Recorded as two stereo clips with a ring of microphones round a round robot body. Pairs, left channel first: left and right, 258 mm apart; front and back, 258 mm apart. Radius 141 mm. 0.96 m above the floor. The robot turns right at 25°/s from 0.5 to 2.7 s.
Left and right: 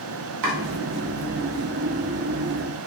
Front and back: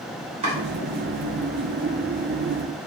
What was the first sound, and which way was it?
Chopping, 110° right.